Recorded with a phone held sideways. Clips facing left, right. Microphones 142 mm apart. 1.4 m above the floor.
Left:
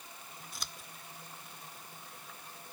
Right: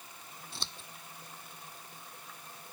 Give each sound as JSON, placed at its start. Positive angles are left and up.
{"t": 0.5, "sound": "scissors", "side_deg": -30}